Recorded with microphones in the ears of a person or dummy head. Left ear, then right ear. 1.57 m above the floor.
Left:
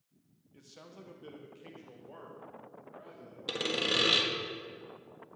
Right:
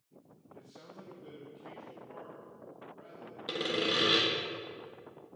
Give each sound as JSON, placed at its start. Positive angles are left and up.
{"t": 0.5, "sound": "a man speaking", "side_deg": 80, "distance_m": 1.5}
{"t": 3.5, "sound": "sawing", "side_deg": 25, "distance_m": 1.3}